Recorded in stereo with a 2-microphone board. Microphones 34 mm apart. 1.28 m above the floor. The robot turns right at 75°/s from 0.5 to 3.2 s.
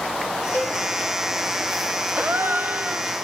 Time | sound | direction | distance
0.5 | a cowbell | 60° left (ahead or behind) | 6.5 m
2.2 | a gasp | 115° right | 0.6 m